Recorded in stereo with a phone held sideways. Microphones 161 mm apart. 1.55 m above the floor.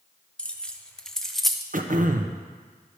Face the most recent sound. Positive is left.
turn(degrees=-55)  # may be behind; listen again after turning